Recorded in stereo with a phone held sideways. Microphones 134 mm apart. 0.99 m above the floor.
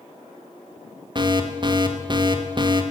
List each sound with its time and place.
1.1 s an alarm: 35° right (ahead or behind), 1.4 m